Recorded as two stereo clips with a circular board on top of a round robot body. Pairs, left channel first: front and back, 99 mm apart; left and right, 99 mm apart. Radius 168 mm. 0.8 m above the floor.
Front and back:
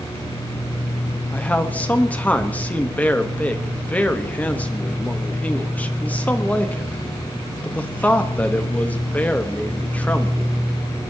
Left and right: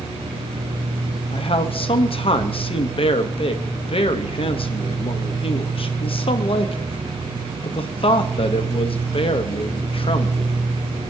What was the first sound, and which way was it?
A man speaking, 75° left.